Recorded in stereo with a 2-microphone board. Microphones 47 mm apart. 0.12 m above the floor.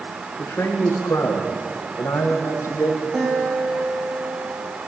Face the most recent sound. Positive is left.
turn(degrees=-15)  # may be behind; listen again after turning